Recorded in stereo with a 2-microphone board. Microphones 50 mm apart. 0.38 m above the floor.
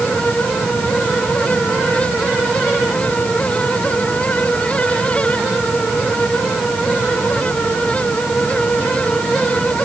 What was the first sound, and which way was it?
Only background noise.